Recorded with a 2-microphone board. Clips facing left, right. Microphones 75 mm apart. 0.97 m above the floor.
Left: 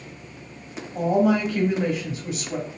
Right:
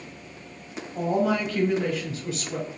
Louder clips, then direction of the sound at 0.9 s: Left 4 dB; 10° left (ahead or behind).